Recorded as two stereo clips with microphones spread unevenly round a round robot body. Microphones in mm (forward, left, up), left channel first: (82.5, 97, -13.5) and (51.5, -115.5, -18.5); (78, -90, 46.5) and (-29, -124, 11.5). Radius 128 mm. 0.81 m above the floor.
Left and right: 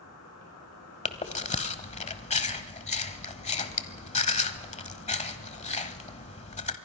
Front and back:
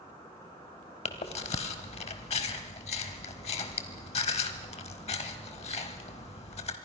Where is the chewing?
25° left, 1.3 m.